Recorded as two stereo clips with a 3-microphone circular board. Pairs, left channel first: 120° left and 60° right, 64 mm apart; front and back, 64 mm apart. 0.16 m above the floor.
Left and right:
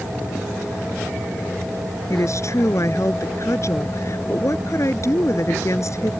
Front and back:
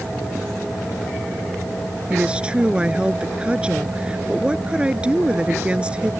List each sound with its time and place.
2.1 s a woman speaking: 110° left